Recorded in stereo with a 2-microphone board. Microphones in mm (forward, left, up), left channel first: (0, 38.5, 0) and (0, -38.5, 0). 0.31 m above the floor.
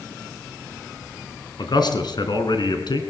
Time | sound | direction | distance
1.6 | a man speaking | 70° left (ahead or behind) | 3 m